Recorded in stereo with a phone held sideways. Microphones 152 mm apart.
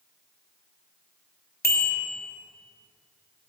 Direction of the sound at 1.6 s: 85° left.